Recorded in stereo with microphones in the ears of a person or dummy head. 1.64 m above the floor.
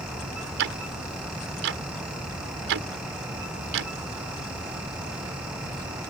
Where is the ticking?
70° right (ahead or behind).